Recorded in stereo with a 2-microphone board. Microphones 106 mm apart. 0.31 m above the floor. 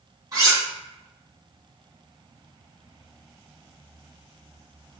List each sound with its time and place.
0.3 s cutlery clinking: 35° right (ahead or behind), 1.7 m